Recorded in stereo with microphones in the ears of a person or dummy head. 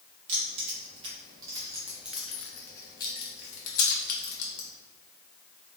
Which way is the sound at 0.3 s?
40° right (ahead or behind).